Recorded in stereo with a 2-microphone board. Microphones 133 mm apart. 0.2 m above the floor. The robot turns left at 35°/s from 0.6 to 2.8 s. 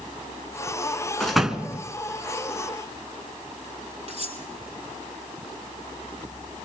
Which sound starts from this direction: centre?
A door slam, at 1.2 s.